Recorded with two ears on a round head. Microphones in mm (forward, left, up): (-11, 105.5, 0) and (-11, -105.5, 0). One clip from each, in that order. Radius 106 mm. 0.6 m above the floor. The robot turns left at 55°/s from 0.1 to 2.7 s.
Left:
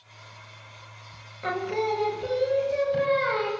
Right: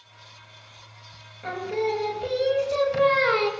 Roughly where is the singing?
Ahead left.